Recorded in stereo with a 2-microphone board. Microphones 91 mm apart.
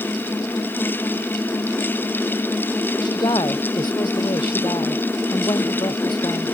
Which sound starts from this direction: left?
A woman speaking, at 3.0 s.